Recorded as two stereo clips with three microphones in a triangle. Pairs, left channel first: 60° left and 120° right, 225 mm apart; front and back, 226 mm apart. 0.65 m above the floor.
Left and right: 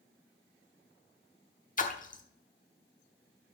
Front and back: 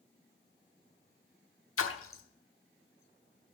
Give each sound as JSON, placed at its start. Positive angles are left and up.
{"t": 1.8, "sound": "a splash", "azimuth_deg": 5, "distance_m": 1.0}